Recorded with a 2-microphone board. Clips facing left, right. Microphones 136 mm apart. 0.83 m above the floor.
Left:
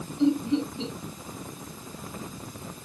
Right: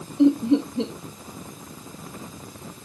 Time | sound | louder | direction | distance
0.2 | laughter | right 6 dB | 65° right (ahead or behind) | 2.5 m